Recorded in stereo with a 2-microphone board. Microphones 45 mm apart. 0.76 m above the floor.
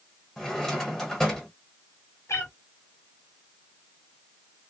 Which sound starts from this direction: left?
A cat meowing, at 2.3 s.